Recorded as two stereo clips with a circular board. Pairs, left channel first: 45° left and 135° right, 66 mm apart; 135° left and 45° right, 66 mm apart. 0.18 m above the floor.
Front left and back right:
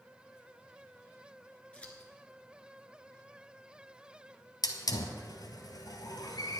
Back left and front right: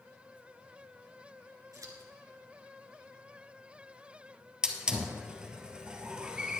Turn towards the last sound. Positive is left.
turn(degrees=30)